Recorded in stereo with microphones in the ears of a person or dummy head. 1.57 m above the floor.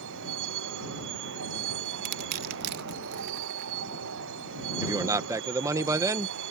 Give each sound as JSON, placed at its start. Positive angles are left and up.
{"t": 0.0, "sound": "a vehicle", "side_deg": -70}
{"t": 2.0, "sound": "crushing", "side_deg": -50}
{"t": 4.8, "sound": "a man speaking", "side_deg": -20}